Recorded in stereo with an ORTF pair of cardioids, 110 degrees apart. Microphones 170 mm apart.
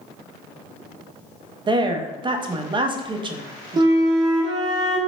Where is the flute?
25° right, 1.0 m.